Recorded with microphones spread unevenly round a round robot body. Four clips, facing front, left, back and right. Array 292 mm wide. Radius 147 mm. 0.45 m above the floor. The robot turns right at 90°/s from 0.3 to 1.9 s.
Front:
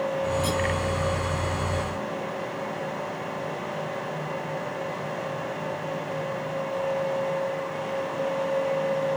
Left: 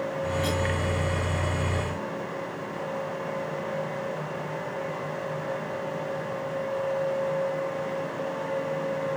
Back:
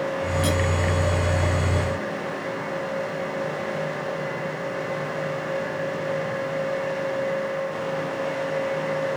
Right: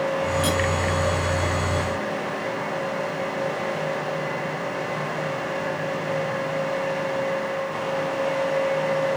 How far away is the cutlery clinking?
About 1.3 m.